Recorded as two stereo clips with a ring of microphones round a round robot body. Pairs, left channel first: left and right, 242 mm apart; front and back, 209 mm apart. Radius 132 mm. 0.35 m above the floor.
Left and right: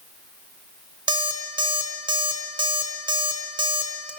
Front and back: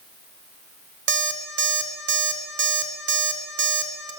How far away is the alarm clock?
About 1.0 m.